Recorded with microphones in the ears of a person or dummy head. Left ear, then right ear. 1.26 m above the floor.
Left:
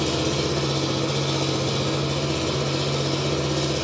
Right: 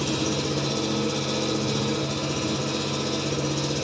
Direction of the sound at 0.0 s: 35° left (ahead or behind).